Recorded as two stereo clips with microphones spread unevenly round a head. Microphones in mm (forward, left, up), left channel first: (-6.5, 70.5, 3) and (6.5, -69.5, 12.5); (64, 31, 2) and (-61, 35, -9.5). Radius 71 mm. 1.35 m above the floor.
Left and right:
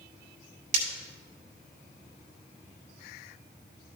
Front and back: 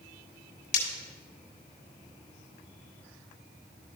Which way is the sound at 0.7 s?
40° right.